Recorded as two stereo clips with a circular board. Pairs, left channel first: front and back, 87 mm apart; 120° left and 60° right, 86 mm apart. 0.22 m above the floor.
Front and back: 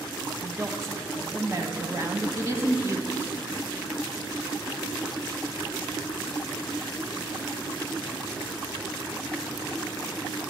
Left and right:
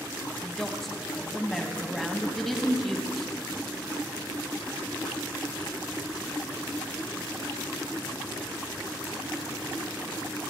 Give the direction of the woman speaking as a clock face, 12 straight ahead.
5 o'clock.